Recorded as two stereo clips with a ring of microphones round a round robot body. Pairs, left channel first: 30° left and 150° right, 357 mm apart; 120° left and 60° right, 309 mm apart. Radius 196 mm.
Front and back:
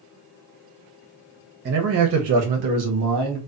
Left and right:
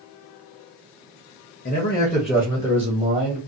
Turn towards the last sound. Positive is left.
turn(degrees=-120)